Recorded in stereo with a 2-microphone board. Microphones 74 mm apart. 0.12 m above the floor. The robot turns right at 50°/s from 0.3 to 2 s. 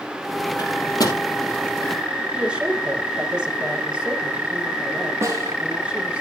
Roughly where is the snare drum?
Right.